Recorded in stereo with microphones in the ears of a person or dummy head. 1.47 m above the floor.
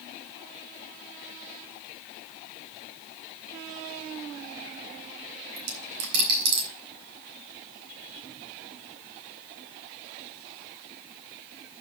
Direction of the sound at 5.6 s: 60° right (ahead or behind).